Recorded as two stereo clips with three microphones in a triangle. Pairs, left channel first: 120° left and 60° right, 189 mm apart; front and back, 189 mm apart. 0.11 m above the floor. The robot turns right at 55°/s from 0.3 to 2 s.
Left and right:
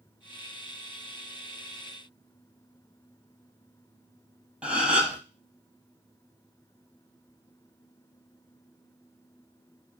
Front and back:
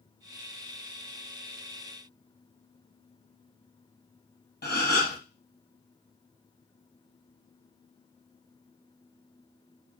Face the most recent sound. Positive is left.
turn(degrees=25)